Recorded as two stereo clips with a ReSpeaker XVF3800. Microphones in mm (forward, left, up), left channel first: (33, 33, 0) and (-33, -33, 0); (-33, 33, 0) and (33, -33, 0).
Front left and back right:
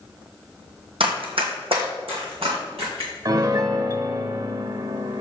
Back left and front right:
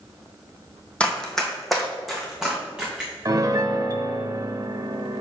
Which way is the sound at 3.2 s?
90° right.